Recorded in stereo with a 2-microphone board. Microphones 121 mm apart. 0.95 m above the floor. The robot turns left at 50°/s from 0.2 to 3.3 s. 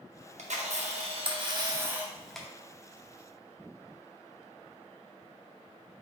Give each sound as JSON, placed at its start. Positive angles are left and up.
{"t": 0.4, "sound": "a camera shutter", "azimuth_deg": -85, "distance_m": 0.7}